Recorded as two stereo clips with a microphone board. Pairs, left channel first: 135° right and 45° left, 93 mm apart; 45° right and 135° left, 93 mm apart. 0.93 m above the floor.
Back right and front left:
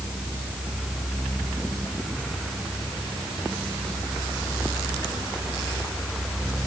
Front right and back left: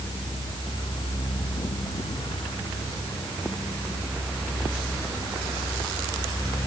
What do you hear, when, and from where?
Only background noise.